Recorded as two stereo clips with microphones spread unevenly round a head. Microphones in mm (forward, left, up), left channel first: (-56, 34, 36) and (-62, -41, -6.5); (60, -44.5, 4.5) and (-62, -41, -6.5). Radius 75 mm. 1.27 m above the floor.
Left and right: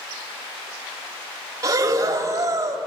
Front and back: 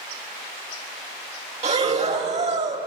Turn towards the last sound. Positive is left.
turn(degrees=-160)